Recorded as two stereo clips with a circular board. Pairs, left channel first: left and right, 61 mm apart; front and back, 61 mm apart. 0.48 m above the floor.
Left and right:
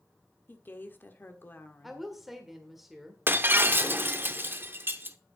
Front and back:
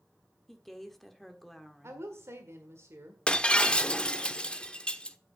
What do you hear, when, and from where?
0.5 s a woman speaking: 85° left, 1.4 m
1.8 s a woman speaking: 175° right, 1.8 m
3.3 s breaking glass: 65° right, 0.7 m